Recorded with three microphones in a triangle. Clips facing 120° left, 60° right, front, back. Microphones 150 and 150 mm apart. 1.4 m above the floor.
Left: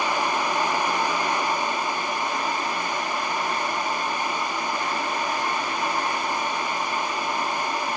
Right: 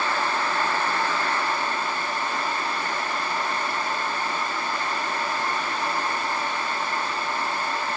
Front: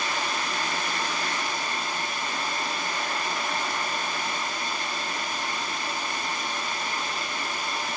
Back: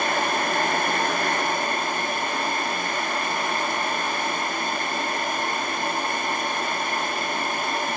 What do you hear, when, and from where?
Only background noise.